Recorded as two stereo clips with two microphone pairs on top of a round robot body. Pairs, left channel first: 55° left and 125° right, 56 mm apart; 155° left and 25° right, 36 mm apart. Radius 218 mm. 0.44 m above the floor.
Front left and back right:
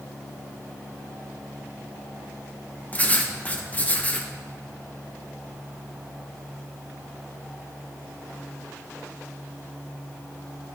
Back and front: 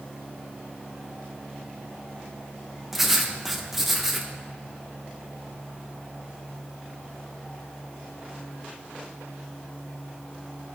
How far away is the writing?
About 1.1 m.